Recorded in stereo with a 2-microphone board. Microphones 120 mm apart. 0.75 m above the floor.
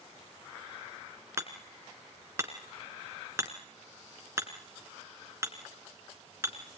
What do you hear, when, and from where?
1.4 s hammering: 25° right (ahead or behind), 2.5 m